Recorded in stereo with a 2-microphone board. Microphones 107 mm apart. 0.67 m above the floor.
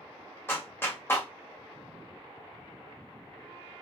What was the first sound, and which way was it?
A clap, 20° left (ahead or behind).